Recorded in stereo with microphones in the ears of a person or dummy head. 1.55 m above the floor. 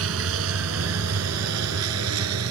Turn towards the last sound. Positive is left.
turn(degrees=-85)